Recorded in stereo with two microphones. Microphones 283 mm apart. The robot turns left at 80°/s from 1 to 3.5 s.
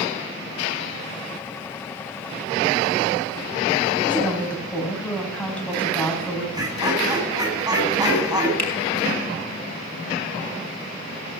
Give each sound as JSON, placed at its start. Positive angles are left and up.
{"t": 4.1, "sound": "a woman speaking", "side_deg": 5, "distance_m": 5.5}
{"t": 6.5, "sound": "laughter", "side_deg": -15, "distance_m": 7.0}
{"t": 8.6, "sound": "a finger snap", "side_deg": 85, "distance_m": 4.5}